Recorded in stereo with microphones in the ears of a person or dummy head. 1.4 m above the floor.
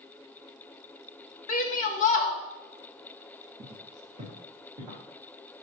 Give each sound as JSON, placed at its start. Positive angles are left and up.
{"t": 1.5, "sound": "a shout", "side_deg": 40, "distance_m": 1.5}
{"t": 3.6, "sound": "footsteps", "side_deg": -25, "distance_m": 2.0}